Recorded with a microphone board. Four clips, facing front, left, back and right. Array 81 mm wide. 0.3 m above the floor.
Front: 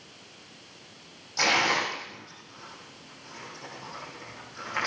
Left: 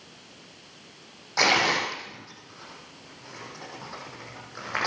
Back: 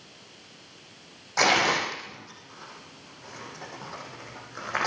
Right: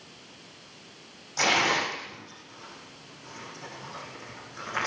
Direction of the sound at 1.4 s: 150° left.